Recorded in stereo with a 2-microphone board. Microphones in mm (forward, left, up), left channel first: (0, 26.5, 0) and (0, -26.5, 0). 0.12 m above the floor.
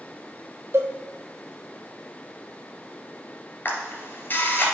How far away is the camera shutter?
About 2.5 m.